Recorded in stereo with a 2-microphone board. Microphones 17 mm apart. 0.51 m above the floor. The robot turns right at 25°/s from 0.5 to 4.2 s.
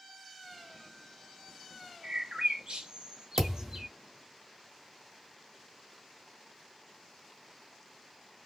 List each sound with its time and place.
2.0 s a bird: 80° right, 0.9 m; by 3.9 s 35° right (ahead or behind), 0.9 m
3.4 s a thud: 35° right (ahead or behind), 1.4 m; by 3.9 s 25° right (ahead or behind), 1.4 m